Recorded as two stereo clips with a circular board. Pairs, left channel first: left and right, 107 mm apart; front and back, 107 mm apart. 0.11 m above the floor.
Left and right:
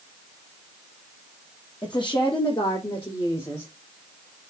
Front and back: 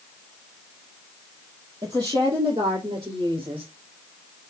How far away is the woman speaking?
About 3 m.